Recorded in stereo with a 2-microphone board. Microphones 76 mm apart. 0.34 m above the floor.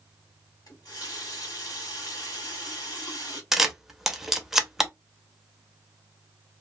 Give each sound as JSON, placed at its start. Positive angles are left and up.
{"t": 0.7, "sound": "a running tap", "side_deg": 65, "distance_m": 1.5}
{"t": 3.5, "sound": "a camera shutter", "side_deg": -5, "distance_m": 0.5}